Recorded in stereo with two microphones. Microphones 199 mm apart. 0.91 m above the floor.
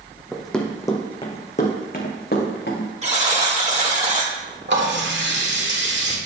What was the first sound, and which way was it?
Running footsteps, 5° right (ahead or behind).